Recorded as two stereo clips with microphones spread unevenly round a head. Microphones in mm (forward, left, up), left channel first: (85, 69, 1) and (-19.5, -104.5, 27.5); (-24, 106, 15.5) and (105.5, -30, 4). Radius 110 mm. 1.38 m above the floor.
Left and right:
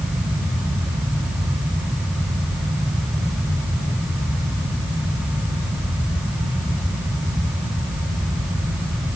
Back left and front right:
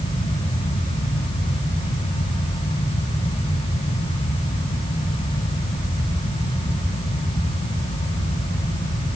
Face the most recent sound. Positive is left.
No sound to turn to.